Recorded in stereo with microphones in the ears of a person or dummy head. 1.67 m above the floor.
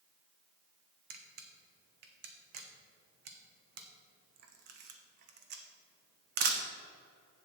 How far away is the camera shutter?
About 1.0 m.